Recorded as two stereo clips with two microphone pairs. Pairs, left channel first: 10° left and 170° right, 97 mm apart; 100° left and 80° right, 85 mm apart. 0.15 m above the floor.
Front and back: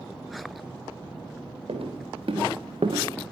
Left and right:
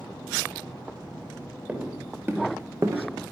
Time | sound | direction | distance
1.7 | footsteps | 150° right | 3 m